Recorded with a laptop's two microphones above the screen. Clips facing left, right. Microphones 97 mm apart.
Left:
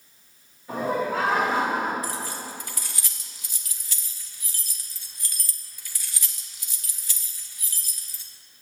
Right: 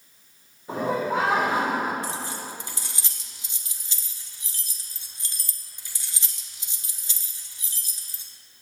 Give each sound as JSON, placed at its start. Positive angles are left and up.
{"t": 0.7, "sound": "laughter", "side_deg": -25, "distance_m": 2.5}
{"t": 2.0, "sound": "keys jangling", "side_deg": -25, "distance_m": 1.2}